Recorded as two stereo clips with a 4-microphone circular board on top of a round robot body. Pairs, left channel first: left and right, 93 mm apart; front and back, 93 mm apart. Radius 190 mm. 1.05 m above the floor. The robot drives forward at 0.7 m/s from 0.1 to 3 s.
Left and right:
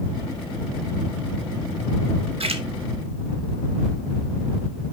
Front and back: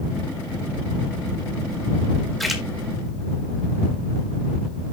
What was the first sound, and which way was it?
A splash, 90° right.